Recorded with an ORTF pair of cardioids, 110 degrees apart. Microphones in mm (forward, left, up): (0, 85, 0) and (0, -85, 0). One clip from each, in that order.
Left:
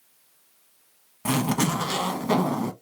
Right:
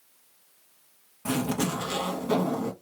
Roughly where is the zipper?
Ahead left.